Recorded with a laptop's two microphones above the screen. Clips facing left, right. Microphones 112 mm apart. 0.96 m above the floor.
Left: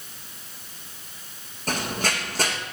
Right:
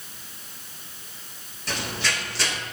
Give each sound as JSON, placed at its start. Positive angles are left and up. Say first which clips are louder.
{"t": 1.7, "sound": "running footsteps", "louder": "left 3 dB", "side_deg": 45, "distance_m": 3.5}